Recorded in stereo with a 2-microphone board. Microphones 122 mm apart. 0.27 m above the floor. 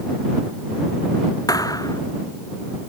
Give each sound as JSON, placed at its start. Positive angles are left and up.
{"t": 1.5, "sound": "a thud", "side_deg": 30}